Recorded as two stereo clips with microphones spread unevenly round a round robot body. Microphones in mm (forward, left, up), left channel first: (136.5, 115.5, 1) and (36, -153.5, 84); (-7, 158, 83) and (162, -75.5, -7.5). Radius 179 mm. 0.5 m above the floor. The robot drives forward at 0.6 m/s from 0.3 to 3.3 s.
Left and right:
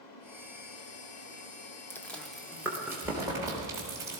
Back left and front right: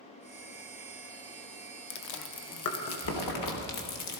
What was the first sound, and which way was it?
Chewing, 125° left.